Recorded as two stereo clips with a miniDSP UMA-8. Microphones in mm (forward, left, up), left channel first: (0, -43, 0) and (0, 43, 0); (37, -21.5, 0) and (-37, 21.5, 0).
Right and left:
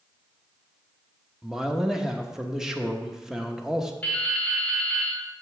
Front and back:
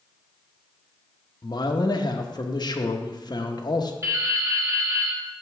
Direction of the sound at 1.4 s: 5° left.